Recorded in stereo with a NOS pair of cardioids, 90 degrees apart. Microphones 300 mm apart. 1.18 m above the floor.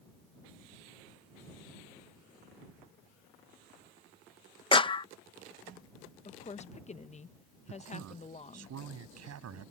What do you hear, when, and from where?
4.7 s a clap: 15° left
6.2 s a woman speaking: 25° left
7.7 s a man speaking: 60° right